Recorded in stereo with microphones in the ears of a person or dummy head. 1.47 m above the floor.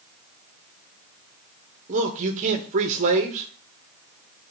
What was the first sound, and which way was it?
A man speaking, 40° right (ahead or behind).